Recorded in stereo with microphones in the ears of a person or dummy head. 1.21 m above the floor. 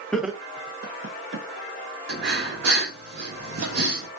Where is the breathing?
65° right (ahead or behind), 1.2 m.